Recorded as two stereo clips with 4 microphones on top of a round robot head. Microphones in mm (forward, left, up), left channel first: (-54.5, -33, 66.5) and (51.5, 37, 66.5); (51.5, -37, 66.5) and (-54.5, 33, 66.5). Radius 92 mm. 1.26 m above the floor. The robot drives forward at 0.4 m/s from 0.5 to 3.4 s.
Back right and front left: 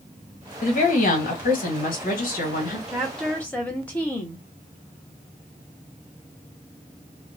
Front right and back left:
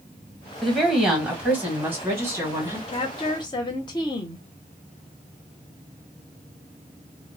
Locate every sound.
0.6 s a woman speaking: 120° right, 1.1 m; by 2.8 s 145° right, 1.7 m
2.9 s a woman speaking: 50° right, 0.7 m; by 4.5 s 70° right, 0.6 m